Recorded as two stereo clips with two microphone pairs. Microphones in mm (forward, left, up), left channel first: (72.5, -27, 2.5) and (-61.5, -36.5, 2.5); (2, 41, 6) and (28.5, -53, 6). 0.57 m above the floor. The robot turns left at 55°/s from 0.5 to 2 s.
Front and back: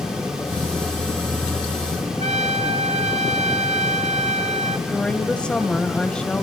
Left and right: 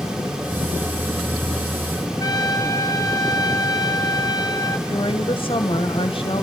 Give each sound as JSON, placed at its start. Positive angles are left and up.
{"t": 2.2, "sound": "a trumpet", "azimuth_deg": 150, "distance_m": 1.6}
{"t": 4.9, "sound": "a woman speaking", "azimuth_deg": 85, "distance_m": 2.5}